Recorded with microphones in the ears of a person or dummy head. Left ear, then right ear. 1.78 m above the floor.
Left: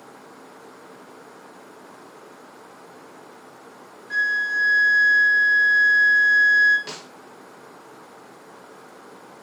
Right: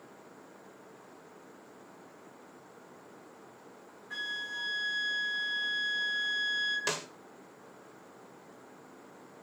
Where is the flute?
55° left (ahead or behind), 1.8 m.